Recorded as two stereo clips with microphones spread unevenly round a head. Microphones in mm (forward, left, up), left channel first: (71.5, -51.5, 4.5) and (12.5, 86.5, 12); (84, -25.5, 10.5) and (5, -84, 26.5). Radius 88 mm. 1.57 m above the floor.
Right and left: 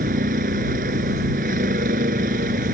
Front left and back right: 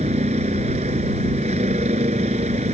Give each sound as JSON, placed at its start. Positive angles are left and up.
{"t": 0.0, "sound": "a vehicle", "azimuth_deg": 160}